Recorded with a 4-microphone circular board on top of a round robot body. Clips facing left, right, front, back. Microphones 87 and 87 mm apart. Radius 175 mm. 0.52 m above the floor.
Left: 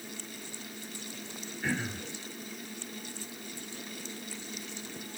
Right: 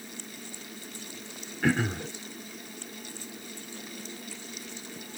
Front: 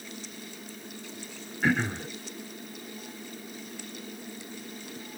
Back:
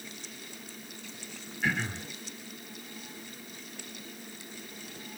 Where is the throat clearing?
60° right, 1.4 m.